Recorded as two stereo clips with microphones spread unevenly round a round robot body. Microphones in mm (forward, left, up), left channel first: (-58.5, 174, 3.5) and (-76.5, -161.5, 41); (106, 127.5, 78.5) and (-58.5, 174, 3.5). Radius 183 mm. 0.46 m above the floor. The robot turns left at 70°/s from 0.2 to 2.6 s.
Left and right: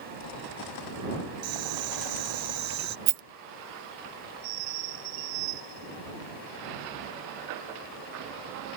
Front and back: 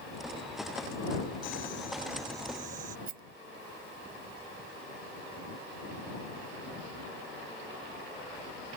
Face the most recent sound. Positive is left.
turn(degrees=-140)